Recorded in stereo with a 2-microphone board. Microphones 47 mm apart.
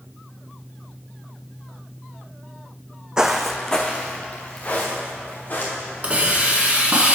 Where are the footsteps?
15° right (ahead or behind), 0.5 m; by 6.1 s 45° left (ahead or behind), 2.5 m.